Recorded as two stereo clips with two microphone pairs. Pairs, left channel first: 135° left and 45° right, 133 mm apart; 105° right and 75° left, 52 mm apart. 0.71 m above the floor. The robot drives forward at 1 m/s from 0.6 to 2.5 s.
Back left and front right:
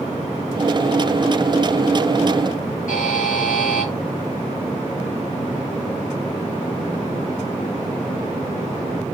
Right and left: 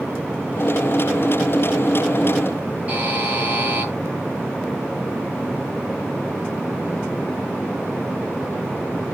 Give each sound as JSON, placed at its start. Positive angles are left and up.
{"t": 2.9, "sound": "a buzzer", "azimuth_deg": 135, "distance_m": 7.0}